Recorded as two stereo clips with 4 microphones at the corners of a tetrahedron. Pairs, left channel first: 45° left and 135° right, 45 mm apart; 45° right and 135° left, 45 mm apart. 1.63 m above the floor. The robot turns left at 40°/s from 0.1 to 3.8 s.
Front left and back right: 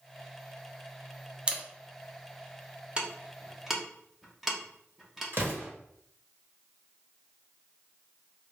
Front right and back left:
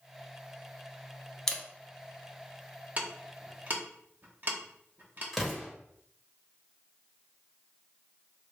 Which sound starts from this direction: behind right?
An explosion, at 5.3 s.